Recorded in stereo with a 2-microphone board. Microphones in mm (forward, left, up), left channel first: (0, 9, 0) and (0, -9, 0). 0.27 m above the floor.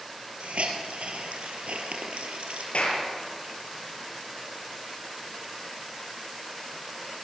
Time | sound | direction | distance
0.4 | a hiss | 80° right | 3.5 m
2.7 | a clap | 75° left (ahead or behind) | 6 m